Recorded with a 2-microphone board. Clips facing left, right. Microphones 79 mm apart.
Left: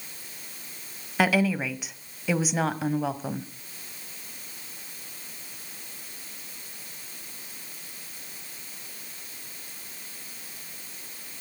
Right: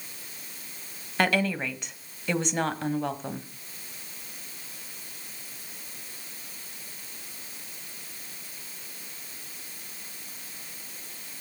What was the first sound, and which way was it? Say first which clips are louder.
A woman speaking: left 2 dB; 5° left (ahead or behind).